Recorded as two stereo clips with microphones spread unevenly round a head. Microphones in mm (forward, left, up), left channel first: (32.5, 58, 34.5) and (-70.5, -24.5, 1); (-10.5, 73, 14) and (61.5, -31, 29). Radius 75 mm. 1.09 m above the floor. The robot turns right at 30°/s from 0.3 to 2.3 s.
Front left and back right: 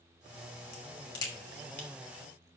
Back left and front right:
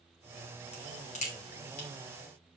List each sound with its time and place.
0.7 s a crack: 85° left, 2.5 m; by 1.9 s 120° left, 2.5 m